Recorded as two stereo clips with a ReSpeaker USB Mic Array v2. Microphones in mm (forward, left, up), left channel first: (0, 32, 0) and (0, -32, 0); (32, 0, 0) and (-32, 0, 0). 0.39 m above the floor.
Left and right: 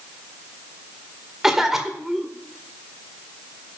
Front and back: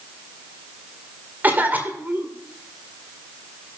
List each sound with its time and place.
1.4 s a cough: 165° right, 1.5 m